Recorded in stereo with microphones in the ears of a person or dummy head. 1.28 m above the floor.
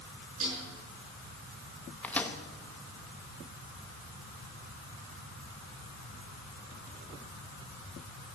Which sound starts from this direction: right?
A snare drum, at 0.4 s.